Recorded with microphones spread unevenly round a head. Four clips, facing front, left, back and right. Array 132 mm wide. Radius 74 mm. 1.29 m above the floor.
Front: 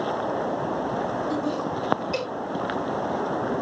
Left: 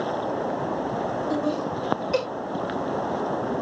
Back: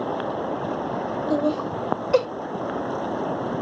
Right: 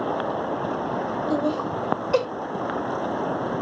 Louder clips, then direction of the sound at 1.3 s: Right 1 dB, back 3 dB; 175° left.